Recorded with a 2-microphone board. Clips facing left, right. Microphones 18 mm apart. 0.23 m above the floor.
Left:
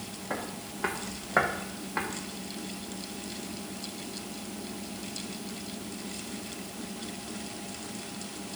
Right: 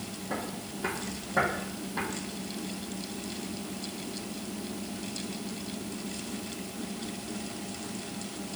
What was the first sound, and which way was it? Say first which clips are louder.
Footsteps: even; 55° left (ahead or behind).